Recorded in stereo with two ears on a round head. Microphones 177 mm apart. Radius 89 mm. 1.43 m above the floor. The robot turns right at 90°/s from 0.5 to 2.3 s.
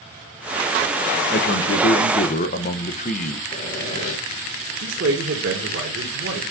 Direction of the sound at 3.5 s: 35° left (ahead or behind).